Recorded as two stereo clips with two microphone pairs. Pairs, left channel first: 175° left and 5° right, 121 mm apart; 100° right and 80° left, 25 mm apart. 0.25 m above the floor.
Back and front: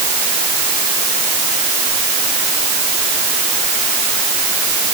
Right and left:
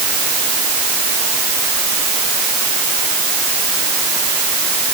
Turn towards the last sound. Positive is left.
No sound to turn to.